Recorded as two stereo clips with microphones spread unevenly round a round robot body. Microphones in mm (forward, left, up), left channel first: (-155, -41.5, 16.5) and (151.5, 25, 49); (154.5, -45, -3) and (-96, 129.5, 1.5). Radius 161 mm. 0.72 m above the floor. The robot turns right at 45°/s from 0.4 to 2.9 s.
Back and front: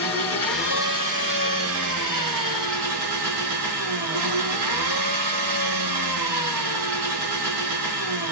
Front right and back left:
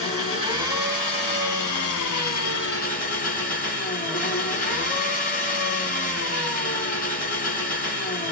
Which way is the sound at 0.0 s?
85° right.